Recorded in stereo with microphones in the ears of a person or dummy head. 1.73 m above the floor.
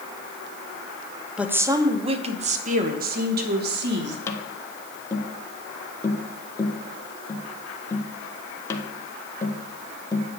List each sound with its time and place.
1.4 s a woman speaking: 5° right (ahead or behind), 1.0 m; by 4.2 s 65° right (ahead or behind), 2.5 m
4.3 s tapping: 15° left (ahead or behind), 1.2 m